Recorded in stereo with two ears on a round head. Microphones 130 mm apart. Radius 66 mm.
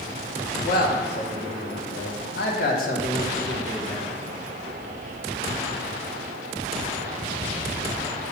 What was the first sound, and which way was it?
A man speaking, 60° left (ahead or behind).